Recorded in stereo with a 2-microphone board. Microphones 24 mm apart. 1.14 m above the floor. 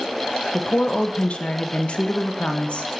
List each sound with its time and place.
0.5 s a woman speaking: 55° left (ahead or behind), 0.6 m